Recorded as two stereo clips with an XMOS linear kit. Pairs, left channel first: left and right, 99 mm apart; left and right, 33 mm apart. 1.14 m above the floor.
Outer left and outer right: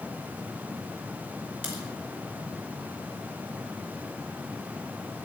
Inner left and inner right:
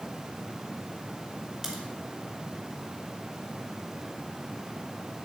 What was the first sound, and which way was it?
A crack, 20° right (ahead or behind).